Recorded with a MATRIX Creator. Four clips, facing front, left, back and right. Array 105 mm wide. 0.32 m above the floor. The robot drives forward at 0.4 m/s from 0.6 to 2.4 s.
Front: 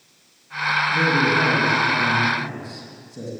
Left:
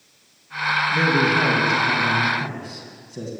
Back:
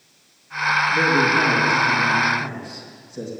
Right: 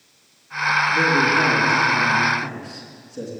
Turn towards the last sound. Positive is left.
turn(degrees=100)